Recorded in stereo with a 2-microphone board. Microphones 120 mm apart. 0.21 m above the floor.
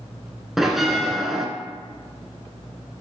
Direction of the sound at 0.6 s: Centre (ahead or behind).